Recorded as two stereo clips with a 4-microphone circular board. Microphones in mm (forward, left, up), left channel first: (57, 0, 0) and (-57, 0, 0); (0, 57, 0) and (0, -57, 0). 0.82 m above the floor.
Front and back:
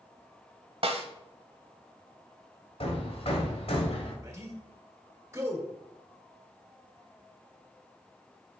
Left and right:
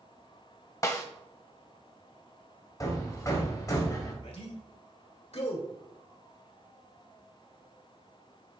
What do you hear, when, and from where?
0.8 s a snare drum: 145° left, 1.3 m
2.8 s hammering: 30° left, 1.6 m
4.2 s a man speaking: 115° left, 2 m